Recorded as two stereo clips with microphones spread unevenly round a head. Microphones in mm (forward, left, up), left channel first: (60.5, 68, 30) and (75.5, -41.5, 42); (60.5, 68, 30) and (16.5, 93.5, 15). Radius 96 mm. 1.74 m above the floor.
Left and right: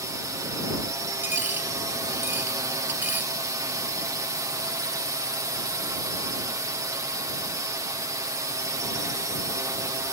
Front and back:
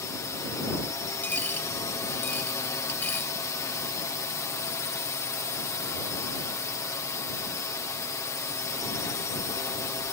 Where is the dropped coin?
20° right.